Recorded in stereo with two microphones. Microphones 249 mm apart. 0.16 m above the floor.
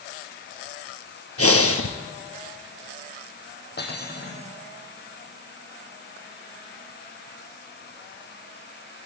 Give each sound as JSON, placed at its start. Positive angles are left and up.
{"t": 1.4, "sound": "breathing", "side_deg": 70, "distance_m": 2.0}
{"t": 3.8, "sound": "cutlery clinking", "side_deg": 40, "distance_m": 3.5}